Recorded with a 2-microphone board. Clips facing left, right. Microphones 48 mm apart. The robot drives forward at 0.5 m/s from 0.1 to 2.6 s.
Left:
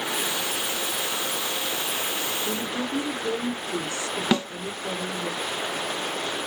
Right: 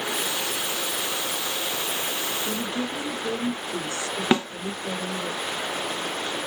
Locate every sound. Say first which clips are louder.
2.5 s a woman speaking: even; 30° left (ahead or behind), 1.4 m; by 5.3 s 25° left (ahead or behind), 1.4 m
4.3 s a snare drum: right 2 dB; 20° right (ahead or behind), 0.6 m